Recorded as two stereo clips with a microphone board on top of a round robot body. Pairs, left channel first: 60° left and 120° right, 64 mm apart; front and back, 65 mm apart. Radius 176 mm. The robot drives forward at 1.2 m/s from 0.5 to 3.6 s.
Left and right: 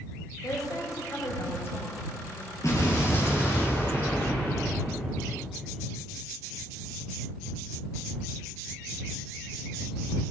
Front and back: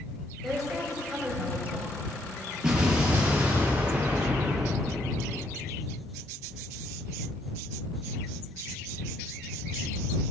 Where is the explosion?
100° left, 5 m; by 5.5 s 115° left, 5 m.